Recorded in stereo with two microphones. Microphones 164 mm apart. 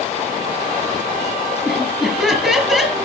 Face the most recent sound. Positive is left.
turn(degrees=0)  # may be behind; listen again after turning